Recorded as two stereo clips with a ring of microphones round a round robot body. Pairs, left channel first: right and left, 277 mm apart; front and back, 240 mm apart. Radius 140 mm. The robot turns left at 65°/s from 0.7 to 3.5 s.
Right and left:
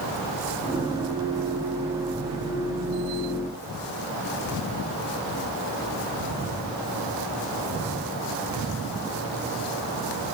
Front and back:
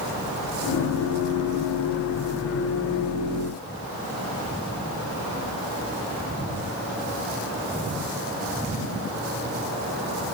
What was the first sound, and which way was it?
Only background noise.